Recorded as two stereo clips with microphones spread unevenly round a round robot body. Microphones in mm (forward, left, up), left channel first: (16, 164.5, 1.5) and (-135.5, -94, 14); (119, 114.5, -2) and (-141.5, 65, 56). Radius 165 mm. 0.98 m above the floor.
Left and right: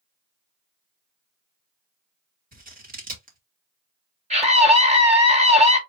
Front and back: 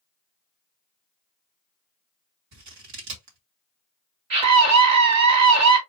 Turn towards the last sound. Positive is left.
turn(degrees=170)